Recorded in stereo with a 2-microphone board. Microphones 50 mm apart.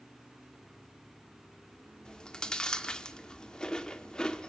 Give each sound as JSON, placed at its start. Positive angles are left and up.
{"t": 2.0, "sound": "chewing", "side_deg": 15, "distance_m": 1.2}